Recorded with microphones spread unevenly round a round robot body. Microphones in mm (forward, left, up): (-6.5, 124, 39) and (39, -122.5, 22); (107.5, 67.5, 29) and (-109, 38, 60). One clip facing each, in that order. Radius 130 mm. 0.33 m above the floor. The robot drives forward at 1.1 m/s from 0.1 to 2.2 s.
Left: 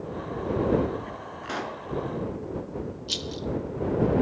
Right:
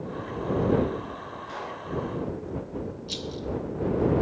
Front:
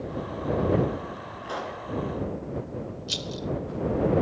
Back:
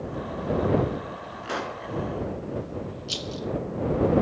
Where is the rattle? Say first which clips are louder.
Left 1 dB, back 2 dB; 45° left, 1.1 m.